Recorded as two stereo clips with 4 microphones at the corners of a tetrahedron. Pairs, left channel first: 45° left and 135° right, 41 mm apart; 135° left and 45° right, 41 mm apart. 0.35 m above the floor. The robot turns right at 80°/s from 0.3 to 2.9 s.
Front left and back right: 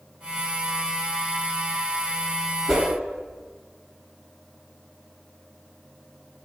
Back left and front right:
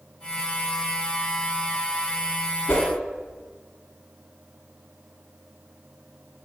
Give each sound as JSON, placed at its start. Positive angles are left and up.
{"t": 2.7, "sound": "a whoosh", "azimuth_deg": 135, "distance_m": 0.7}